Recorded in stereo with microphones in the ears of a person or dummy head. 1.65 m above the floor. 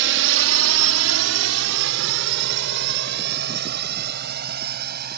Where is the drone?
65° right (ahead or behind); by 5.2 s 50° right (ahead or behind).